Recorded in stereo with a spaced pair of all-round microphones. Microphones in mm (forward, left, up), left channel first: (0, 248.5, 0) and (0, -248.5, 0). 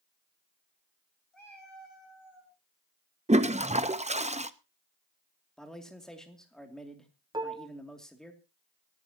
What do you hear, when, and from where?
1.3 s a cat meowing: 75° left (ahead or behind), 7 m; by 2.5 s 65° left (ahead or behind), 7.5 m
3.3 s a toilet flushing: 15° right (ahead or behind), 0.7 m
5.6 s a man speaking: centre (ahead or behind), 2.5 m
7.3 s dishes clattering: 10° right (ahead or behind), 1.6 m